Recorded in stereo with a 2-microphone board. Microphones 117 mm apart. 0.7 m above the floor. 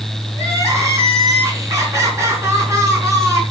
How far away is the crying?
About 3.5 m.